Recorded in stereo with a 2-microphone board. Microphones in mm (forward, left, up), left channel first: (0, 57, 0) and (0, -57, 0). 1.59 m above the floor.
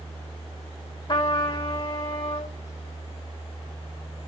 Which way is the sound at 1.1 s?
45° left (ahead or behind).